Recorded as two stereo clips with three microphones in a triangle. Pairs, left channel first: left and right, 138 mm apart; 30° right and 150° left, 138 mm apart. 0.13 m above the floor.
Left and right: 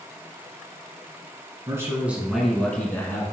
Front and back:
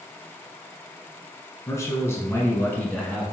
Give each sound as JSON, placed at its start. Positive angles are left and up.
{"t": 1.7, "sound": "a man speaking", "azimuth_deg": -60, "distance_m": 1.1}